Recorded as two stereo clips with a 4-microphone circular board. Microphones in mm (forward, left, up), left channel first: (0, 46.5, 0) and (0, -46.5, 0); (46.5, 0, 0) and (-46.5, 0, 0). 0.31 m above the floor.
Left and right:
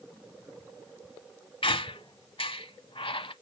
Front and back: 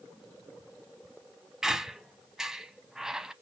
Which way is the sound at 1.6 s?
95° left.